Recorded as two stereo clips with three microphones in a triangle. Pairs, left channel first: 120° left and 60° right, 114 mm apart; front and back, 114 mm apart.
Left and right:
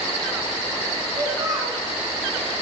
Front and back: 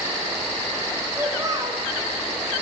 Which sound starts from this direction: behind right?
A child speaking, at 1.2 s.